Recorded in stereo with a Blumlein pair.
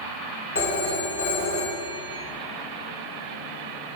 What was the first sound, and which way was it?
A phone ringing, 60° left.